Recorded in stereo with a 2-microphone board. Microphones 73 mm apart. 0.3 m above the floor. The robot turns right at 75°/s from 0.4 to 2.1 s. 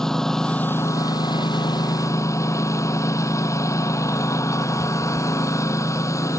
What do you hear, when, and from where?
0.0 s a lawn mower: 5° left; by 6.4 s 135° left